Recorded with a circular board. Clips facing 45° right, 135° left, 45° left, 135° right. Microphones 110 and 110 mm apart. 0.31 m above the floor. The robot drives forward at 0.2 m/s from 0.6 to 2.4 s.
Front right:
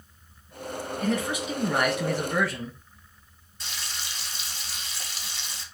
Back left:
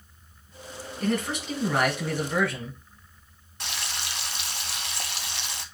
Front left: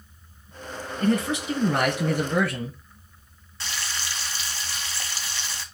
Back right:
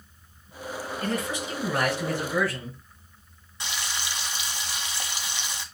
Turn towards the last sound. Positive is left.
turn(degrees=150)